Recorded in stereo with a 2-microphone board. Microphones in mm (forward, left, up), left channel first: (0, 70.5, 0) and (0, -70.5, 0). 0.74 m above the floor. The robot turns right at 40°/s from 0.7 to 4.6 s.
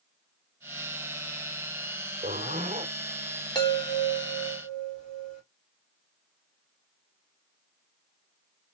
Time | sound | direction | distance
2.2 | a zipper | 80° right | 1.5 m
3.5 | a chime | 30° left | 2 m